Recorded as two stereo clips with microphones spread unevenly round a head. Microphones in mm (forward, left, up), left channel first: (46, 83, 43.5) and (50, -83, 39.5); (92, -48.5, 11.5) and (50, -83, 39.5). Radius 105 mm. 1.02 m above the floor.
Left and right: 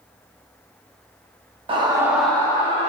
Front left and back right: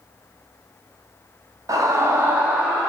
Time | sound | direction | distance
1.7 | a scream | 125° right | 1.0 m